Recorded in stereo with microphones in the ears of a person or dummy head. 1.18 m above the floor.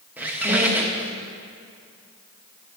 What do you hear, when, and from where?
0.2 s a squeak: 10° right (ahead or behind), 0.9 m